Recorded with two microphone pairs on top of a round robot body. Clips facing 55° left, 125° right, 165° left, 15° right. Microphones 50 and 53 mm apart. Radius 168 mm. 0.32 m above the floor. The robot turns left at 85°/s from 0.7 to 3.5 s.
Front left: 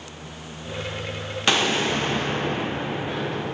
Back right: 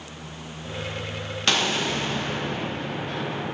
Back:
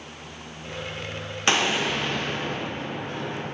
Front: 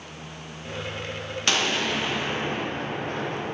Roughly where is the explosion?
Behind left.